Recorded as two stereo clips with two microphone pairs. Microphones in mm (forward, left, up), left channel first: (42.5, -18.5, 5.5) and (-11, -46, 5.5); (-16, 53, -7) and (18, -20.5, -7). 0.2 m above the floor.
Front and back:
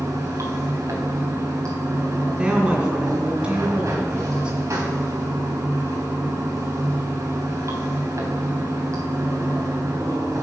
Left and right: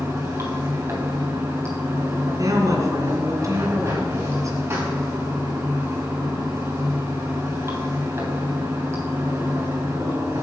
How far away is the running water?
About 3 m.